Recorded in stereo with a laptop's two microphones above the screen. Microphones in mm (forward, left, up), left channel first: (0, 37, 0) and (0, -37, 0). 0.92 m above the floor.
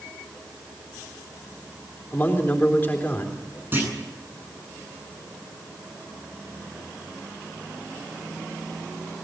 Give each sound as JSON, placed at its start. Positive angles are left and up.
{"t": 2.1, "sound": "a man speaking", "side_deg": 25, "distance_m": 3.5}
{"t": 3.7, "sound": "a clunk", "side_deg": -30, "distance_m": 8.5}